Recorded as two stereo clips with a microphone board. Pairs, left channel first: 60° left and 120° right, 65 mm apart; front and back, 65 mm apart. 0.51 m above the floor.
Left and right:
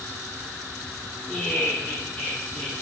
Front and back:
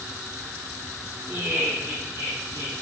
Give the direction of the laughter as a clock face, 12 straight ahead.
7 o'clock.